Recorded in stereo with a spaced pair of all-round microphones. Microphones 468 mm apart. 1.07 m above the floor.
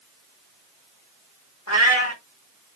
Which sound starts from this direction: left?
A cat meowing, at 1.7 s.